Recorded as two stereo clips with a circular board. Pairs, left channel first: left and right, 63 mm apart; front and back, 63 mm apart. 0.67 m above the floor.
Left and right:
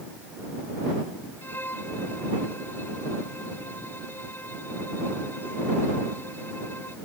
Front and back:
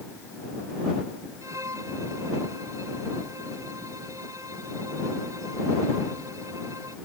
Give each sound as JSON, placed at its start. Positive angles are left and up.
{"t": 1.4, "sound": "a violin", "azimuth_deg": 150}